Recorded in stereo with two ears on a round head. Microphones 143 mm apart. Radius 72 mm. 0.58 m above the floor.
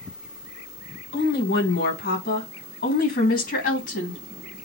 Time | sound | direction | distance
1.1 | a woman speaking | 75° left (ahead or behind) | 4.5 m